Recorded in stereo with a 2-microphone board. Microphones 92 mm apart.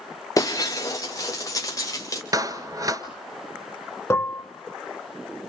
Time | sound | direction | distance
0.4 | breaking glass | 40° left (ahead or behind) | 3 m
2.3 | a clap | 40° right (ahead or behind) | 1.5 m
4.1 | dishes clattering | 30° left (ahead or behind) | 0.9 m